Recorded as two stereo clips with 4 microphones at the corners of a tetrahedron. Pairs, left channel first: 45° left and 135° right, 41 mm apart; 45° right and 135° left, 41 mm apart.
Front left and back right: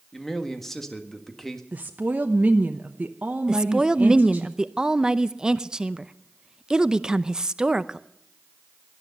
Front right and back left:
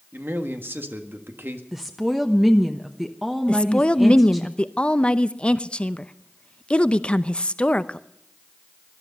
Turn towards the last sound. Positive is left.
turn(degrees=-75)